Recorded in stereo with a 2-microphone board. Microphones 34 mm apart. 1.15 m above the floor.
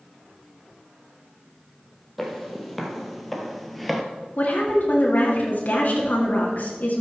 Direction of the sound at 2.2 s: Centre (ahead or behind).